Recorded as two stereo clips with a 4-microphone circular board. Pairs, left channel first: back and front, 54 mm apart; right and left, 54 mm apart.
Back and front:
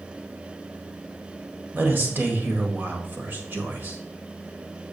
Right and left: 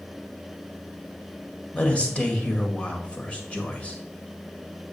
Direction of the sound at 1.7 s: 30° right.